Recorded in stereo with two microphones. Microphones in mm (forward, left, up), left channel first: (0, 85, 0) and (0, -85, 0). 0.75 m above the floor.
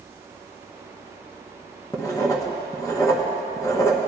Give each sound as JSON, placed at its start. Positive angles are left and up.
{"t": 1.9, "sound": "writing", "side_deg": 20, "distance_m": 0.9}